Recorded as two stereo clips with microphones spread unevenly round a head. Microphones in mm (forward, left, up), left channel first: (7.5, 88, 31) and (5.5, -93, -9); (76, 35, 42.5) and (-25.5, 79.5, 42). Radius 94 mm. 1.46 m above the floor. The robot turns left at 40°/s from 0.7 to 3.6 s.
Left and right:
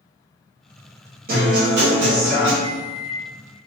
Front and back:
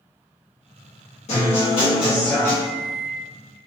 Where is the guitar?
50° right, 1.1 m; by 2.5 s 100° right, 1.1 m.